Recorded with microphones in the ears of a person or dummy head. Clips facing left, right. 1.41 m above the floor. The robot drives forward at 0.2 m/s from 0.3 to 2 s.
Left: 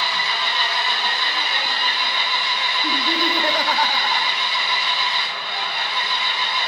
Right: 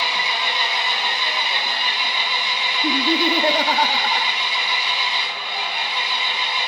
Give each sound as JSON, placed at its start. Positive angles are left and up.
{"t": 0.0, "sound": "an engine running", "side_deg": -15, "distance_m": 1.7}
{"t": 2.8, "sound": "laughter", "side_deg": -20, "distance_m": 0.6}